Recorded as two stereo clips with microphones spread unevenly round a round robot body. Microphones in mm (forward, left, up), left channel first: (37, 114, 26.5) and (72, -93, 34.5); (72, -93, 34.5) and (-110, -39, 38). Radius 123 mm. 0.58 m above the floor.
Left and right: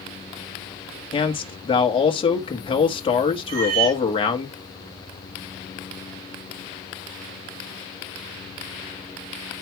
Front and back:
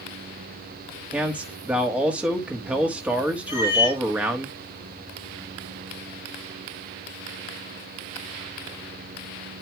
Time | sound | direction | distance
1.1 | a man speaking | 85° left | 1.3 m
3.5 | a cat meowing | 85° right | 6 m